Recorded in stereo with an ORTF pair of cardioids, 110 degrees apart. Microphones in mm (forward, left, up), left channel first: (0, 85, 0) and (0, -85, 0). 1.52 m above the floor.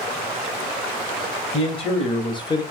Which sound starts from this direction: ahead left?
A man speaking, at 1.5 s.